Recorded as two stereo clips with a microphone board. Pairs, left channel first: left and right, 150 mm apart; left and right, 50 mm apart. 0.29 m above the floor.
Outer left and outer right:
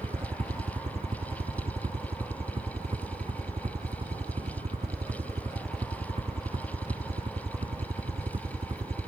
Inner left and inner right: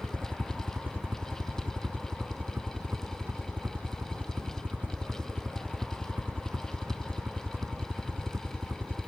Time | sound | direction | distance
0.0 | a helicopter | 40° right (ahead or behind) | ?